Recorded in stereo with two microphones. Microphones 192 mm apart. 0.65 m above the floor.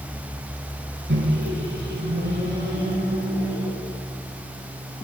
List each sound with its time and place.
1.1 s a microwave: 70° right (ahead or behind), 4.5 m